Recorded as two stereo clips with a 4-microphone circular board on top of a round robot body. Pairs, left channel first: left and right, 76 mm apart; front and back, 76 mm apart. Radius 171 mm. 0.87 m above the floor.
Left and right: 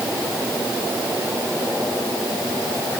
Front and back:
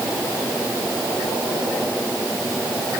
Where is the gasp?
I don't hear a gasp.